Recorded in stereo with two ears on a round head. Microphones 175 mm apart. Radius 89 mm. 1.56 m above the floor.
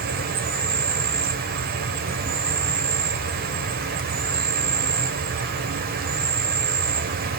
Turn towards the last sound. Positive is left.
turn(degrees=-50)  # may be behind; listen again after turning